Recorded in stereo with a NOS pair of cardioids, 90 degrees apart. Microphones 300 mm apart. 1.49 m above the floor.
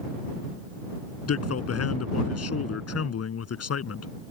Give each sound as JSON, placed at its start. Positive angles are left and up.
{"t": 1.3, "sound": "a man speaking", "azimuth_deg": 55}